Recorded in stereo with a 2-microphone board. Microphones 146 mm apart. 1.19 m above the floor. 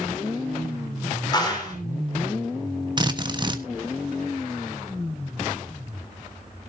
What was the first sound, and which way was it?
A clap, 30° left (ahead or behind).